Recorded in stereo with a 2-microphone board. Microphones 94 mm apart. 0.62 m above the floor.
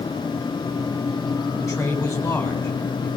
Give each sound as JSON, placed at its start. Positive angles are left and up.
{"t": 1.6, "sound": "a man speaking", "side_deg": 35, "distance_m": 4.0}